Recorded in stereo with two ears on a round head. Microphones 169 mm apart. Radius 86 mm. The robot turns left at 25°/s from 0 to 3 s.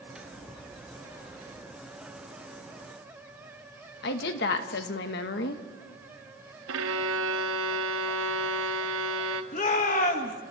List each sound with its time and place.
4.0 s a woman speaking: 65° left (ahead or behind), 1.4 m
6.7 s a violin: 80° right, 0.9 m
9.5 s a shout: 45° left (ahead or behind), 1.8 m